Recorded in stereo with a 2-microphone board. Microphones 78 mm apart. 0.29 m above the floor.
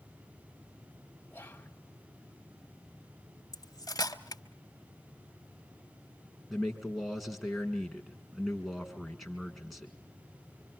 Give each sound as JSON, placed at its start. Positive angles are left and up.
{"t": 1.3, "sound": "whispering", "side_deg": 20, "distance_m": 1.7}
{"t": 3.5, "sound": "cutlery clinking", "side_deg": 55, "distance_m": 0.9}
{"t": 6.5, "sound": "a man speaking", "side_deg": -5, "distance_m": 3.5}